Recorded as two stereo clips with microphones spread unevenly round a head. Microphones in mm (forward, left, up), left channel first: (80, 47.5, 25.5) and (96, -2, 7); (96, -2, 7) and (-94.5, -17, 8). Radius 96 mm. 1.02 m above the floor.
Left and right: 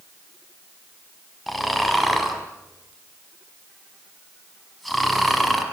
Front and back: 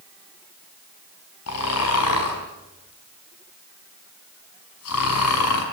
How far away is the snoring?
About 5 m.